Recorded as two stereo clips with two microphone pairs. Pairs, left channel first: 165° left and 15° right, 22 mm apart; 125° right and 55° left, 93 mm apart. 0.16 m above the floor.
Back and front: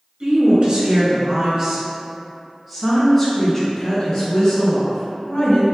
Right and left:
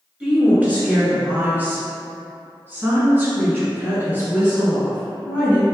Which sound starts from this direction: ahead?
A woman speaking, at 0.2 s.